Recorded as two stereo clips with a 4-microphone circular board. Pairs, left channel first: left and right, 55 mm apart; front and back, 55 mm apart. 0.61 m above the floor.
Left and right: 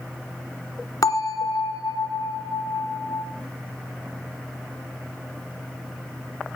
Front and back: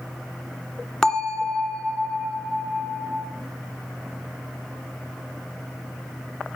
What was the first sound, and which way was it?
A bell, 80° left.